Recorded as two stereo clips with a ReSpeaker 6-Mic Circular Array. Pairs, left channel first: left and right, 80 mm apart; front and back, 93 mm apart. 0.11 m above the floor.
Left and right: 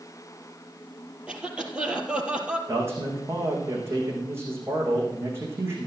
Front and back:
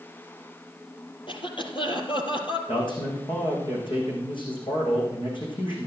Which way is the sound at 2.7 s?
30° right.